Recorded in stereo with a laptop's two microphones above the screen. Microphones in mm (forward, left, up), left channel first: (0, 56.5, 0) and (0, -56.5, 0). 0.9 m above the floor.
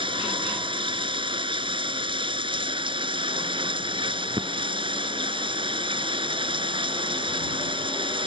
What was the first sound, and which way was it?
Running water, 50° right (ahead or behind).